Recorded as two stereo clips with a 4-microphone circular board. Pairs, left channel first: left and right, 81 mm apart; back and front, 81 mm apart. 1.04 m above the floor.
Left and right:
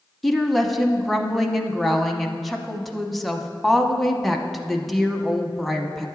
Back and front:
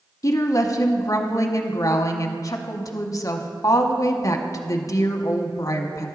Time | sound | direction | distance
0.2 | a woman speaking | 175° left | 0.8 m